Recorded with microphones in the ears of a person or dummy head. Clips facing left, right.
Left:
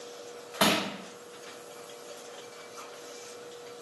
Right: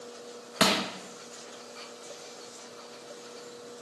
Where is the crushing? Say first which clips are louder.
Even; 40° right (ahead or behind), 0.5 m.